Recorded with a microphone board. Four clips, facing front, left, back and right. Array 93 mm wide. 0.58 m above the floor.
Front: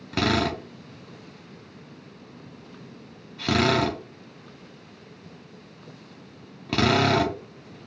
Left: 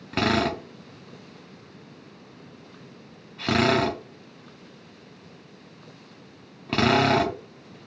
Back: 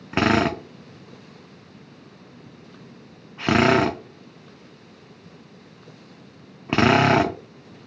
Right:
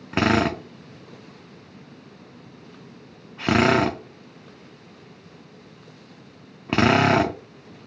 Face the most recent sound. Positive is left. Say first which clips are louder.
# right 3 dB, back 4 dB
turn(degrees=-150)